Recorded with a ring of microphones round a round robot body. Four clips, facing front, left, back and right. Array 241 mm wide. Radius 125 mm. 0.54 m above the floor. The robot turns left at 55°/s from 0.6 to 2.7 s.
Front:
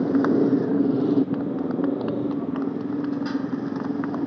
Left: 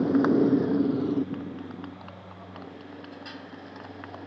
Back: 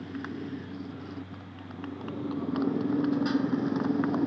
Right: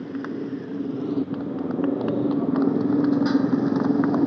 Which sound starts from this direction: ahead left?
A motorcycle, at 0.0 s.